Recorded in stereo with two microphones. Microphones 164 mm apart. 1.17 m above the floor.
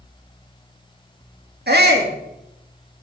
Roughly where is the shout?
Right.